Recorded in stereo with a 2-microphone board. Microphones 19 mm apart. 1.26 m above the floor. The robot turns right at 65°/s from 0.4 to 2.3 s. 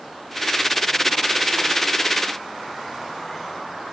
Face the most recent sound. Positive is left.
No sound to turn to.